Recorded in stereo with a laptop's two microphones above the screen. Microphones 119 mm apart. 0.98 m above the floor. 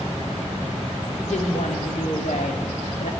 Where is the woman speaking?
80° left, 2.5 m; by 3.1 s 75° left (ahead or behind), 1.7 m.